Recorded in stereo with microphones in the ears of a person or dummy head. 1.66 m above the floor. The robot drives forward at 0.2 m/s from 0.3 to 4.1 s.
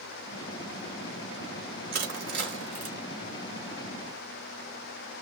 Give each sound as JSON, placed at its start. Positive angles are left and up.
{"t": 1.9, "sound": "crushing", "side_deg": -55, "distance_m": 3.5}